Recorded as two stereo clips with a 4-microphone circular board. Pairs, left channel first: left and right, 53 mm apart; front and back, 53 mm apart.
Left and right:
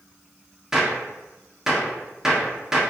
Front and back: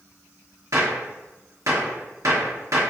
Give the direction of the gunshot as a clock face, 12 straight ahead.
6 o'clock.